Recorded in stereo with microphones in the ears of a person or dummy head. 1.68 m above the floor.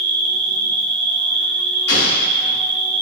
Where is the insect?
25° right (ahead or behind), 5 m.